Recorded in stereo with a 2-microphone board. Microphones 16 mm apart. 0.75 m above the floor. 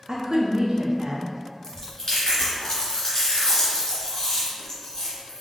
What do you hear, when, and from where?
0.1 s a woman speaking: 50° right (ahead or behind), 0.8 m
1.6 s chewing: 30° left (ahead or behind), 1.9 m